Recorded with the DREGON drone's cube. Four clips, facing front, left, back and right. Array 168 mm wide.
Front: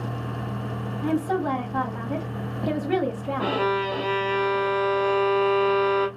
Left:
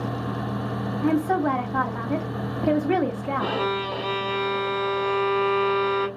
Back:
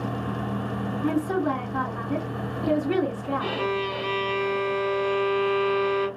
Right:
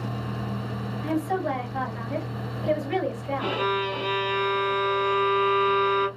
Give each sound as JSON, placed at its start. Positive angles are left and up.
{"t": 1.0, "sound": "a woman speaking", "azimuth_deg": 65, "distance_m": 1.3}
{"t": 3.4, "sound": "a violin", "azimuth_deg": 30, "distance_m": 1.4}